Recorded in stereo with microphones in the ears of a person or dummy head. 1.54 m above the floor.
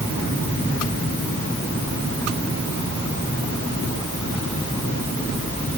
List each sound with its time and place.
Only background noise.